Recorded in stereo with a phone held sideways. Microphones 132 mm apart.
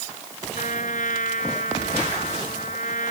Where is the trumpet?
75° left (ahead or behind).